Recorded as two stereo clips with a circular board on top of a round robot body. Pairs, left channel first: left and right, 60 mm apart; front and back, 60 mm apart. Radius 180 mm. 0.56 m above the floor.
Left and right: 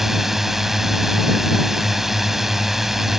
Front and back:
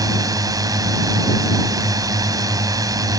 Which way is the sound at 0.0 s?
175° right.